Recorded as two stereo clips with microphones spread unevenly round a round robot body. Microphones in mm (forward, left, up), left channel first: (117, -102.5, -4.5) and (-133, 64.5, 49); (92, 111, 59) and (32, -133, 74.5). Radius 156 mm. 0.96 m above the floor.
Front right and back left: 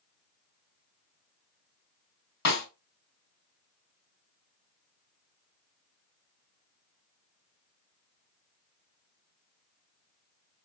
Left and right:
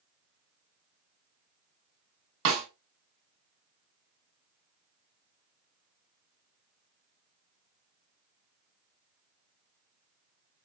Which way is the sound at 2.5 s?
70° right.